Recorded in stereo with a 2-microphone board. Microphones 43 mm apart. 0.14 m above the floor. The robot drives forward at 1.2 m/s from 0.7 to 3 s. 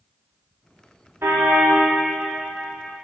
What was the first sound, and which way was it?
A car horn, 85° right.